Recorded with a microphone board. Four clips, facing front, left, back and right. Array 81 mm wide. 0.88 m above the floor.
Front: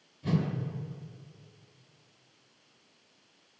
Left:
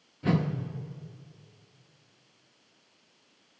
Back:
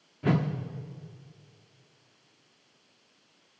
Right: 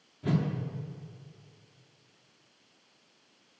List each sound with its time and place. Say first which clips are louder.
0.2 s a whoosh: left 3 dB, back 4 dB; 160° left, 1.1 m